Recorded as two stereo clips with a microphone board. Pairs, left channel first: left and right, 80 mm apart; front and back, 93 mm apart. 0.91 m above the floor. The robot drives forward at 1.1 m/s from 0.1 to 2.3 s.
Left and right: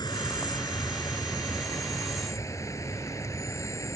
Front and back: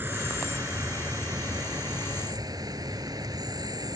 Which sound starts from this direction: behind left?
An insect, at 0.0 s.